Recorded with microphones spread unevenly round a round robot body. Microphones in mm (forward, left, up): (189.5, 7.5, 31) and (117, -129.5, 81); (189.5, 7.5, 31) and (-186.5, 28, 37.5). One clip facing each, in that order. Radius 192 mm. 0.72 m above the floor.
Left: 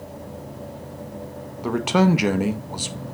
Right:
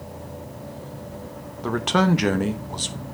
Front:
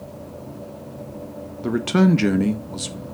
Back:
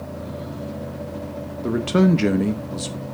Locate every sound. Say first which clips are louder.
1.6 s a man speaking: left 2 dB, even; 65° left, 0.9 m